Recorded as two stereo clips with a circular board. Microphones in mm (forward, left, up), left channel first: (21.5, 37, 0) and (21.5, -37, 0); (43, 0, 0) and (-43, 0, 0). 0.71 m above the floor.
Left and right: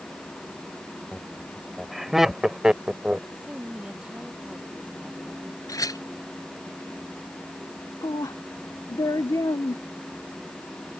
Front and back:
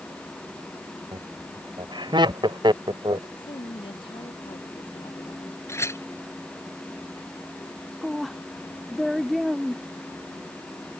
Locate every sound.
1.1 s laughter: 175° left; by 3.2 s 160° right
3.4 s a woman speaking: 15° right
5.7 s a clink: 55° left
8.0 s a woman speaking: 90° left